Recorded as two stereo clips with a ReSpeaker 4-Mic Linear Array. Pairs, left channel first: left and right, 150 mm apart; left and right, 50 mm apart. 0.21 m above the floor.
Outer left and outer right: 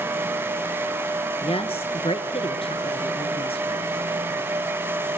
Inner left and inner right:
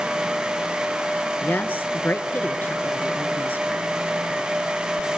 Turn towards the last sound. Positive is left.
turn(degrees=40)  # may be behind; listen again after turning